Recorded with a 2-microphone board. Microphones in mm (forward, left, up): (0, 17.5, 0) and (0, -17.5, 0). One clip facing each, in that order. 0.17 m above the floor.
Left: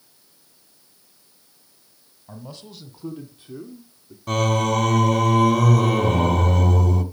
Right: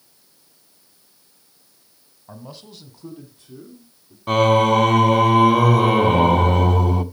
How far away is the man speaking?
About 1.6 m.